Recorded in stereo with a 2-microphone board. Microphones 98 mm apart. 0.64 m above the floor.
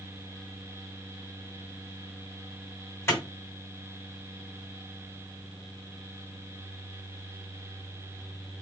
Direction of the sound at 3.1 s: 25° left (ahead or behind).